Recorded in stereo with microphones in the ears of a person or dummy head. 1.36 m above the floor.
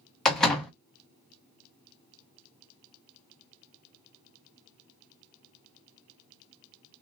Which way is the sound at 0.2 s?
5° left (ahead or behind).